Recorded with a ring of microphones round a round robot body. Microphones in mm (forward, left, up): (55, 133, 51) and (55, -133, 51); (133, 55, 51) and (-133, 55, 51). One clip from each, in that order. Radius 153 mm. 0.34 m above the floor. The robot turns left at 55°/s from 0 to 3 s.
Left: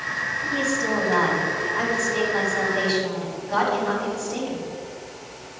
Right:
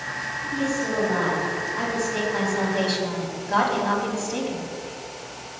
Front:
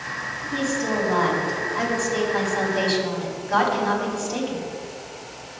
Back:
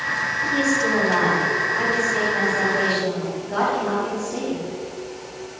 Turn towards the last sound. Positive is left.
turn(degrees=-30)